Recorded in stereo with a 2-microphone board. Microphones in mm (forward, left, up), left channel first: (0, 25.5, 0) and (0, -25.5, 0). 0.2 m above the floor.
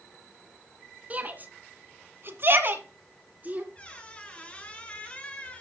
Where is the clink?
I don't hear a clink.